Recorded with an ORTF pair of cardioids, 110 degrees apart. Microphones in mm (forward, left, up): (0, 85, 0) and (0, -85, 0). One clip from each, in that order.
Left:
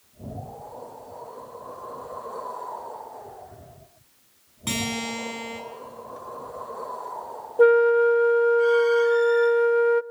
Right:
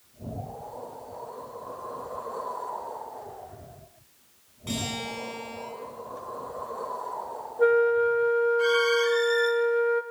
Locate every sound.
4.7 s a guitar: 60° left, 8.5 m
7.6 s a flute: 65° left, 0.5 m